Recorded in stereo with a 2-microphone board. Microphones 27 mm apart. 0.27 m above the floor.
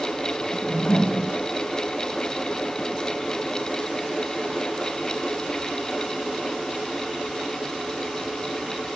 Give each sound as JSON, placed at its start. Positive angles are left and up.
{"t": 0.5, "sound": "a whoosh", "side_deg": 45, "distance_m": 0.7}